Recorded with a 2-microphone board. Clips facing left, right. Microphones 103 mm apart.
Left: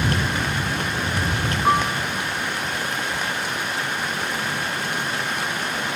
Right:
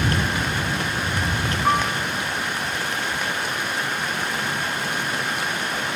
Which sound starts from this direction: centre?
A piano, at 1.6 s.